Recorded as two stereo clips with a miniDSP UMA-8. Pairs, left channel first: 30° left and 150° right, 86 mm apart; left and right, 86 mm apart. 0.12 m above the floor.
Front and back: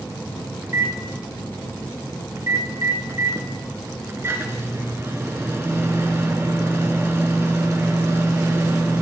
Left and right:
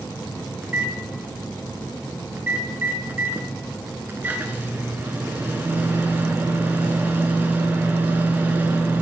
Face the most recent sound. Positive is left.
turn(degrees=-135)